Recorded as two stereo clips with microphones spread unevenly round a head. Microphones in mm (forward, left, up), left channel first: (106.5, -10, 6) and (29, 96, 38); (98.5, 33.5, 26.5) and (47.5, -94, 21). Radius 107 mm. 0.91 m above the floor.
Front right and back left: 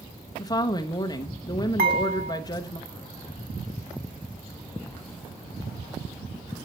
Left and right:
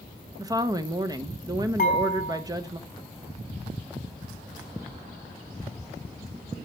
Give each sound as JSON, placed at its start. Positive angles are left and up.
{"t": 0.4, "sound": "a woman speaking", "azimuth_deg": -65, "distance_m": 0.8}
{"t": 1.8, "sound": "dishes clattering", "azimuth_deg": 130, "distance_m": 4.0}